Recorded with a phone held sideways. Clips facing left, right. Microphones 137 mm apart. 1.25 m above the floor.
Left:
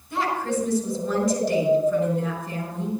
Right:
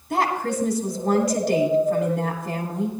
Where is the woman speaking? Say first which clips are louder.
Right 2 dB; 70° right (ahead or behind), 3.5 m.